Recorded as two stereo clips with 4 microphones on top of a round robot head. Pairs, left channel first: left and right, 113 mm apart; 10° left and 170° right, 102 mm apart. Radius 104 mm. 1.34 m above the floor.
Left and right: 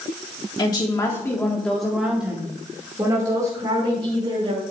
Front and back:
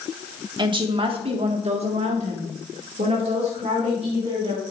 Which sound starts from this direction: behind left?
A woman speaking, at 0.6 s.